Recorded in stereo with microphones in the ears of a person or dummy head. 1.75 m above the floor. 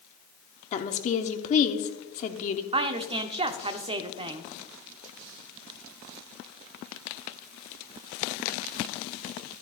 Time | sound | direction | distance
0.7 | a woman speaking | 35° left (ahead or behind) | 0.9 m
2.7 | a woman speaking | 30° right (ahead or behind) | 0.7 m